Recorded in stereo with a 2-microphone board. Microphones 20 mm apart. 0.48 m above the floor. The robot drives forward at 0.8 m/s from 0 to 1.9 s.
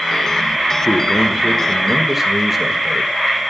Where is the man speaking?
10° right (ahead or behind), 1.3 m.